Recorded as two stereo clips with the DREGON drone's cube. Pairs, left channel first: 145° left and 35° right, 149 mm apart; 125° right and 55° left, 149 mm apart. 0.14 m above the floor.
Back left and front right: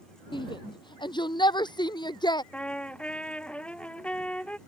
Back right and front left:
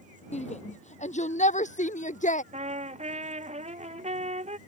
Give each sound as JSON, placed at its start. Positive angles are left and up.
{"t": 0.3, "sound": "a shout", "azimuth_deg": -160}
{"t": 2.5, "sound": "a trumpet", "azimuth_deg": 65}